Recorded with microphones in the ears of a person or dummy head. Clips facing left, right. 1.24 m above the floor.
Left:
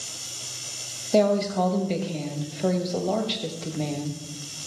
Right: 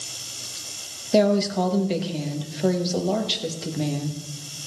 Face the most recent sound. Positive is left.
turn(degrees=-10)  # may be behind; listen again after turning